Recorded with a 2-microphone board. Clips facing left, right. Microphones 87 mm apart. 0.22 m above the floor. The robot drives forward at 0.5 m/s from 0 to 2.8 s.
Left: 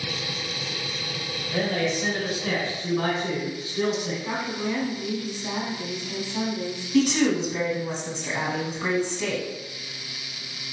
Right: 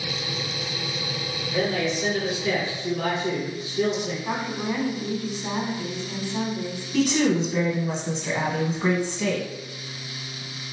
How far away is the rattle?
I don't hear a rattle.